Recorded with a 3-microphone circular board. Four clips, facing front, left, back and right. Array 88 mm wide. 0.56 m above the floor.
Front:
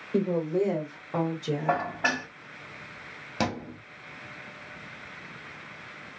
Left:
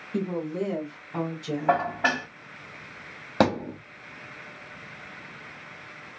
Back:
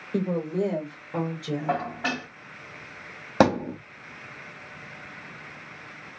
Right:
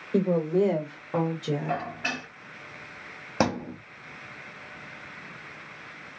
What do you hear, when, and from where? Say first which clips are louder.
0.1 s a woman speaking: right 6 dB, front 1 dB; 85° right, 2 m; by 1.9 s 55° right, 1.7 m
1.7 s dishes clattering: left 7 dB, front 1 dB; 70° left, 1.3 m
3.4 s a thud: left 3 dB, back 10 dB; 165° left, 0.9 m